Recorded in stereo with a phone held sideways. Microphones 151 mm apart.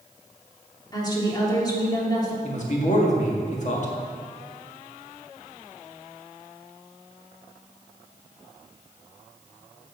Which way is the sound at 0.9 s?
25° left (ahead or behind).